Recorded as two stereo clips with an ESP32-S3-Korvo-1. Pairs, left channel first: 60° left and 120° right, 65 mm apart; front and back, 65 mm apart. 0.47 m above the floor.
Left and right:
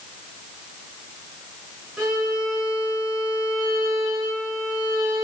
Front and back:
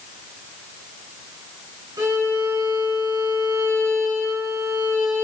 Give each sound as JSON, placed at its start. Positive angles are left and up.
{"t": 2.0, "sound": "a violin", "azimuth_deg": 160, "distance_m": 5.5}